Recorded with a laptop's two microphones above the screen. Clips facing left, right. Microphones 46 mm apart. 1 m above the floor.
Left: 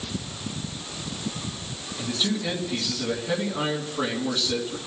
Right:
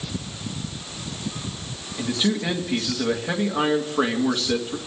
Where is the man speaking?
40° right (ahead or behind), 2 m.